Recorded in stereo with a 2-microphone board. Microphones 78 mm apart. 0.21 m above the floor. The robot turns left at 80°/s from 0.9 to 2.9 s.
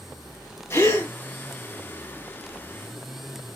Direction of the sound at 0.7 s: 35° left (ahead or behind).